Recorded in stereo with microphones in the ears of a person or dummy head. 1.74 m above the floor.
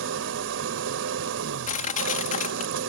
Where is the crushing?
45° left (ahead or behind).